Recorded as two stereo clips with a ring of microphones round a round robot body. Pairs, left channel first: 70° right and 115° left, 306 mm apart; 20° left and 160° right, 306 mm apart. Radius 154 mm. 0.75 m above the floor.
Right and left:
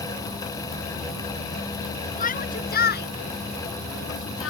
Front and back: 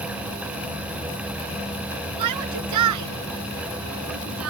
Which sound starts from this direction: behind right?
A shout, at 2.2 s.